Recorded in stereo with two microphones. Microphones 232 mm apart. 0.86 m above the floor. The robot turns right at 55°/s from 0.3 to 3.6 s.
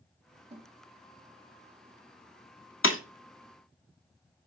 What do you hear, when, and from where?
0.5 s a snare drum: 30° right (ahead or behind), 0.8 m; by 0.7 s 15° right (ahead or behind), 0.8 m
2.8 s breaking glass: 60° left (ahead or behind), 0.7 m